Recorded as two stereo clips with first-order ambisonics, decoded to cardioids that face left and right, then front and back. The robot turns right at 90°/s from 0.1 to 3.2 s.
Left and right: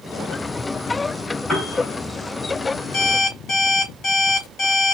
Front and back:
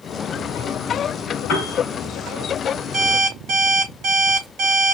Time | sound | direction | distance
1.5 | a piano | 5° left | 3.5 m
2.9 | an alarm clock | 110° left | 3.5 m